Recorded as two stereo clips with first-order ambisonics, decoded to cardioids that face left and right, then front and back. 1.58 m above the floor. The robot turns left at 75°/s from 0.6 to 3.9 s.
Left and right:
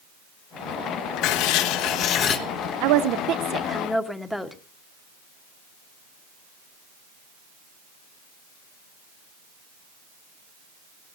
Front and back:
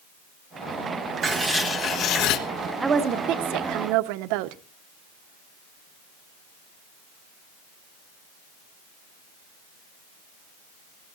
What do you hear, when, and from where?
1.2 s writing: 115° left, 1.1 m; by 2.4 s 25° left, 1.1 m
2.8 s a woman speaking: 100° right, 1.2 m; by 4.6 s 175° left, 1.2 m